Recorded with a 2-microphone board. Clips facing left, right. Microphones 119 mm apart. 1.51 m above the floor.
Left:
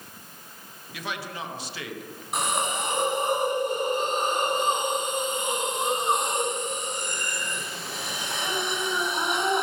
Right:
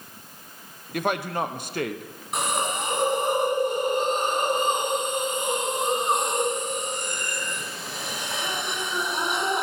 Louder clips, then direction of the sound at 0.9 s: Right 9 dB; 55° right (ahead or behind).